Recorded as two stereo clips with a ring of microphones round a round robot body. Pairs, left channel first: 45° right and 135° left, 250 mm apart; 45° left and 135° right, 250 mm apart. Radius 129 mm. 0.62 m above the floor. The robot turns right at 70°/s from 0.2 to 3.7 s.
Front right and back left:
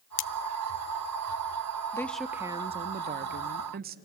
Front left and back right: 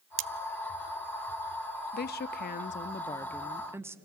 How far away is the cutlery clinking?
About 0.6 m.